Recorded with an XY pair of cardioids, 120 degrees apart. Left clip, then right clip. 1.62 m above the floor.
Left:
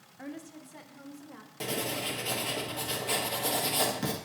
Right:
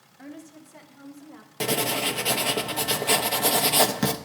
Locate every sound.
0.2 s a woman speaking: 15° left, 2 m; by 1.5 s 5° left, 4 m
1.6 s writing: 50° right, 1.2 m